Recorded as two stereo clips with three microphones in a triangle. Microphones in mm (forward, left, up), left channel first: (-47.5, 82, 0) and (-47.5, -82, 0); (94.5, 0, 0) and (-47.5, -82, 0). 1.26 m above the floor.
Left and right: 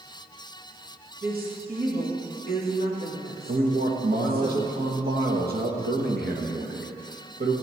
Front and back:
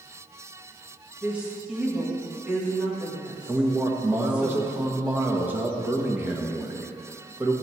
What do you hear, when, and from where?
1.2 s a woman speaking: 65° right, 2 m
3.5 s a man speaking: 70° right, 1.3 m